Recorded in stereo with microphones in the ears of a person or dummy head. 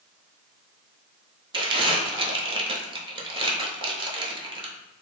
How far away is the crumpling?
About 0.9 m.